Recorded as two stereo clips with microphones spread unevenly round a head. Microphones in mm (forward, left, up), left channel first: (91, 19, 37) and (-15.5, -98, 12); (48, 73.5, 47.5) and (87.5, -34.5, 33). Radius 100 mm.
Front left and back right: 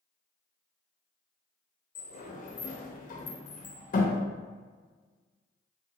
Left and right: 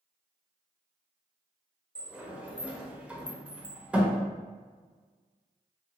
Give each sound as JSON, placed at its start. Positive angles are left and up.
{"t": 1.9, "sound": "a sliding door", "azimuth_deg": 10, "distance_m": 0.8}